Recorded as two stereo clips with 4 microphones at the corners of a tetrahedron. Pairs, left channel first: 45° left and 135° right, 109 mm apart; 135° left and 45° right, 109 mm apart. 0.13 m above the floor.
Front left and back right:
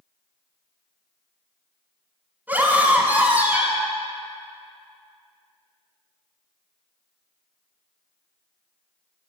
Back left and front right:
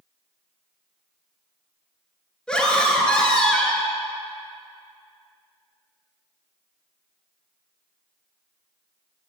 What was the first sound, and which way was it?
A scream, 165° right.